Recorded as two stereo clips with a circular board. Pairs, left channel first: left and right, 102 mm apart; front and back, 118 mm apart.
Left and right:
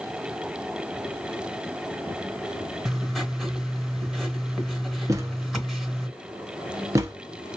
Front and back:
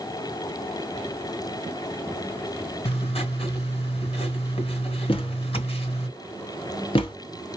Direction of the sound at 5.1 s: 35° right.